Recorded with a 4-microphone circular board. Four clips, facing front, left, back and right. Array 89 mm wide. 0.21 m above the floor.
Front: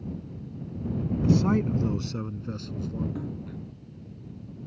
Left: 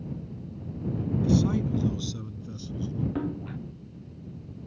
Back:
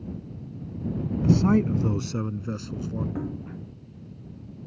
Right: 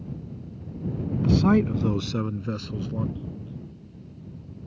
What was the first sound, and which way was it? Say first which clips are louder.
A man speaking: right 6 dB, back 3 dB; 90° right.